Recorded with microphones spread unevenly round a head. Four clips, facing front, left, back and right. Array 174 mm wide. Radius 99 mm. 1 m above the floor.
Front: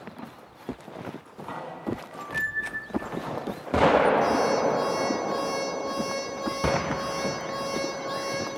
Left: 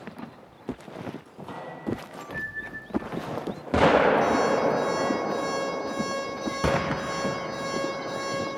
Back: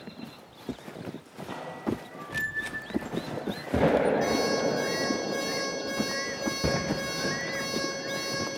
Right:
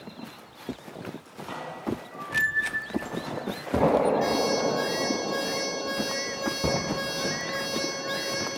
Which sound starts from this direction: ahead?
A microwave, at 1.2 s.